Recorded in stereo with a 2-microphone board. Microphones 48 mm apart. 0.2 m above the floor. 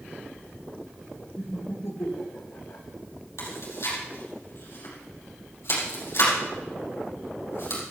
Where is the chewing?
75° left (ahead or behind), 6.5 m.